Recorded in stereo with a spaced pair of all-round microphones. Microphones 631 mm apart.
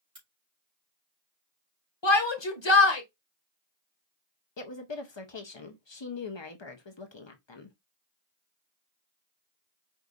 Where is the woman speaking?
45° left (ahead or behind), 0.9 m.